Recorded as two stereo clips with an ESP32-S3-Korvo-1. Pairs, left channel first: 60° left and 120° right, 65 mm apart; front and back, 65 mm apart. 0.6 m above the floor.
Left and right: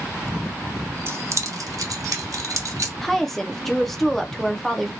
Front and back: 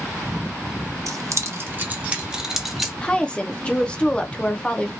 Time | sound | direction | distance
1.1 | keys jangling | 165° right | 0.6 m
3.0 | a woman speaking | 15° right | 0.6 m